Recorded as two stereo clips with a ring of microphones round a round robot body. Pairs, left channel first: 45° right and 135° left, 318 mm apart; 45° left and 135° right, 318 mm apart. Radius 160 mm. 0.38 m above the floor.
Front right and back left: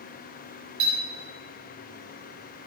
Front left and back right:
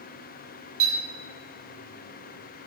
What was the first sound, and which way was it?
A clink, 170° right.